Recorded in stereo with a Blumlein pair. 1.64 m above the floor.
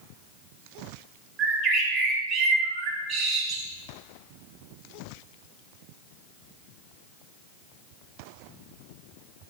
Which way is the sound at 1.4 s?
30° right.